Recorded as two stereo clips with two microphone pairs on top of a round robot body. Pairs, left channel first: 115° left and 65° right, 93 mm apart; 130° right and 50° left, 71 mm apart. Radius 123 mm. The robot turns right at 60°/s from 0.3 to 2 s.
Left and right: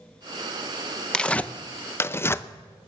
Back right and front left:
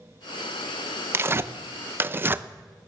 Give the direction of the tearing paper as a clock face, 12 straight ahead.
11 o'clock.